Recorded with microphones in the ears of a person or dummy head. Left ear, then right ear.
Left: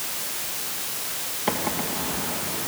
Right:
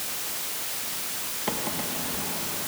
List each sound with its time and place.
1.5 s a microwave: 10° left (ahead or behind), 1.4 m